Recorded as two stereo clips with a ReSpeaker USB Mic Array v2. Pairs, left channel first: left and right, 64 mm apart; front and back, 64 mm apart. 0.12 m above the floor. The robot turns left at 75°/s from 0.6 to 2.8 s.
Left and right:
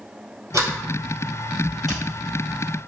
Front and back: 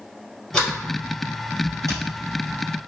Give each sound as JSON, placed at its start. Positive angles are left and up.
{"t": 0.5, "sound": "a sliding door", "azimuth_deg": -80, "distance_m": 2.0}